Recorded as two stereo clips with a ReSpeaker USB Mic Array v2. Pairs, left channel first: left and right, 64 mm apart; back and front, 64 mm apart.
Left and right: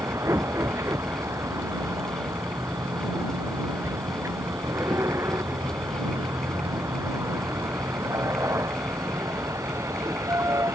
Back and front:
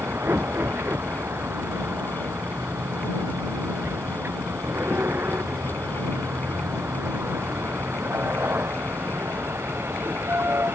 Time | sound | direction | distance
0.0 | a vehicle | 50° right | ?